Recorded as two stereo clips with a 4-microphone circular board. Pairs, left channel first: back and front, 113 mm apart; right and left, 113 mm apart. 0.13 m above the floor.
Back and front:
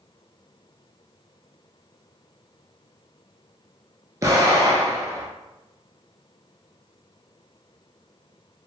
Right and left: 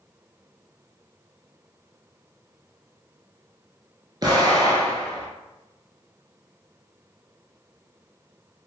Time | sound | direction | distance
4.2 | an explosion | 50° left | 0.8 m